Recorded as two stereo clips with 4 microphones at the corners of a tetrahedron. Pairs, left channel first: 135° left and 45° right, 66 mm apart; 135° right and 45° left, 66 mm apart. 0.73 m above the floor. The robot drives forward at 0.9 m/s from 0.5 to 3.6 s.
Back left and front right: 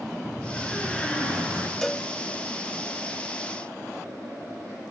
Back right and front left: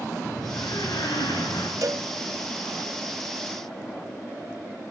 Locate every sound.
0.2 s a door slam: 145° right, 6.5 m; by 1.7 s 150° right, 7.5 m
1.8 s a cowbell: 50° left, 0.9 m; by 2.1 s 70° left, 0.8 m